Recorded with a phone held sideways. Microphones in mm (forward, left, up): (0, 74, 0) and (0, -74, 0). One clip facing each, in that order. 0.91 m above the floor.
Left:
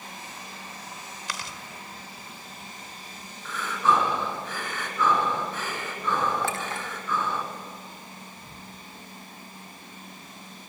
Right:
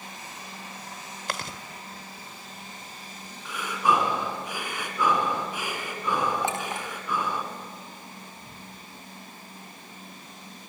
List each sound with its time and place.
1.3 s chewing: 60° right (ahead or behind), 1.2 m
3.5 s breathing: 15° right (ahead or behind), 3.5 m
6.4 s a clink: 20° right (ahead or behind), 3 m